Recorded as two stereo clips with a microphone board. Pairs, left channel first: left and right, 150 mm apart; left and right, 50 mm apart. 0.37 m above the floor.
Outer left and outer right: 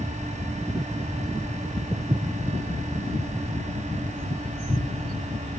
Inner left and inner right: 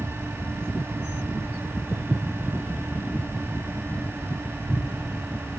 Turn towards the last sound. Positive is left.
turn(degrees=-55)  # may be behind; listen again after turning